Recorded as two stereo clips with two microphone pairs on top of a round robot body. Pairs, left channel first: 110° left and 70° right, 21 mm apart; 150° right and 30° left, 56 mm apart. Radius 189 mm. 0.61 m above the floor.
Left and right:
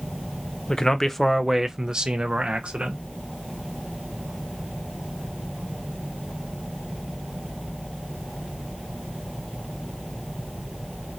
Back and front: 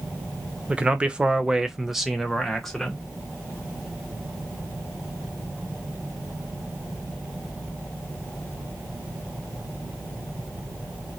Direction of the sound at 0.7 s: 100° left.